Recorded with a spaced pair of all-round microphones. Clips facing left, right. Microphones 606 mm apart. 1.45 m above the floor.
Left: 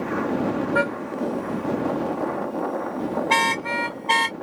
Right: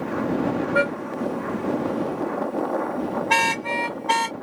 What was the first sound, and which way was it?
A car horn, 55° right (ahead or behind).